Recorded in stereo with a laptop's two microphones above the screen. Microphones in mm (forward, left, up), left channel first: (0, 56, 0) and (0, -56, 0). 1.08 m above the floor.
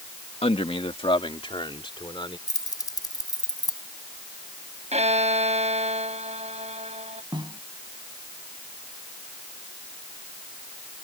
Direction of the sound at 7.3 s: 45° right (ahead or behind).